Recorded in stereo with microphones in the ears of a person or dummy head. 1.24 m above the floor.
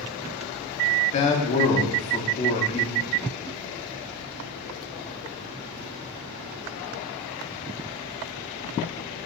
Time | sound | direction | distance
1.1 | a man speaking | 30° left (ahead or behind) | 0.7 m